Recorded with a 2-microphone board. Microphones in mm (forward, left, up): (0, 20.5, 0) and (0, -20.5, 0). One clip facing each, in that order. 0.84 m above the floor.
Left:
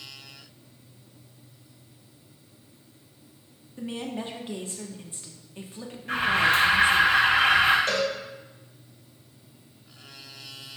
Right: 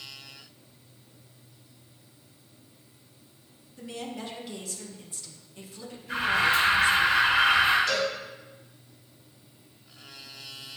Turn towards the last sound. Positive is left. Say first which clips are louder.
# left 1 dB
turn(degrees=45)  # may be behind; listen again after turning